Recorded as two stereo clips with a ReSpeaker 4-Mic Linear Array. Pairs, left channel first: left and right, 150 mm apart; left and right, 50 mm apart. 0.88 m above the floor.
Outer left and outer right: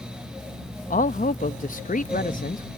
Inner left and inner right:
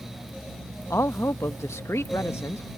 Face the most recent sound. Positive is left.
turn(degrees=65)  # may be behind; listen again after turning